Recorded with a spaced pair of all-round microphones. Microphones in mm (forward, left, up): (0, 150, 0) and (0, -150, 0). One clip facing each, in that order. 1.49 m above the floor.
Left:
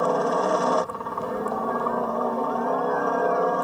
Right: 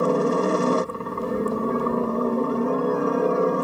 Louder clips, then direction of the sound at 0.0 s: Right 3 dB; 30° right (ahead or behind).